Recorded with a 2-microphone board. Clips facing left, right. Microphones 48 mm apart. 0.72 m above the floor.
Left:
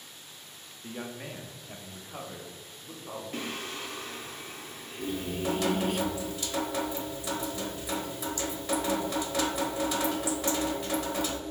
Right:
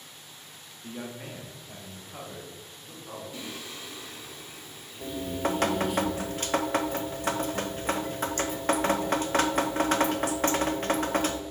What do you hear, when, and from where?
0.8 s a man speaking: 10° left (ahead or behind), 0.9 m; by 3.2 s 15° left (ahead or behind), 2 m
3.3 s singing: 50° left (ahead or behind), 0.8 m
5.0 s dripping: 50° right (ahead or behind), 0.6 m